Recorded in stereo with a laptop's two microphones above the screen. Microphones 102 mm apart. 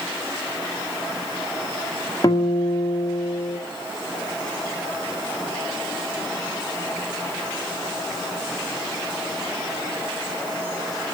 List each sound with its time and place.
2.2 s a guitar: 45° left (ahead or behind), 2 m